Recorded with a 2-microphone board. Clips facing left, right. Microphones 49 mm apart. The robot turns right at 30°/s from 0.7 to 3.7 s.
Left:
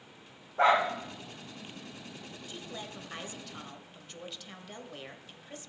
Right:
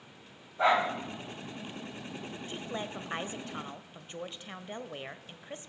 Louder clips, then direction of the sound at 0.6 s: Left 2 dB; 50° left (ahead or behind).